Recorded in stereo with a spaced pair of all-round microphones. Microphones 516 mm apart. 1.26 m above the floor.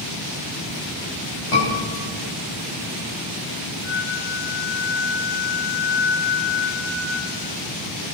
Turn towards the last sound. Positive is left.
turn(degrees=-15)  # may be behind; listen again after turning